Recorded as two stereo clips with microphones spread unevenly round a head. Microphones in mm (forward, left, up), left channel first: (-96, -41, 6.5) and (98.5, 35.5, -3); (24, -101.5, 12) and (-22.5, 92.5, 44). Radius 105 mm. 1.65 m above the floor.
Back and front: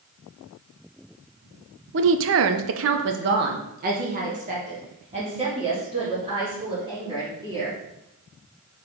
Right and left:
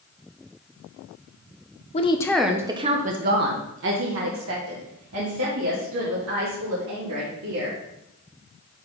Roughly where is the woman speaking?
Ahead.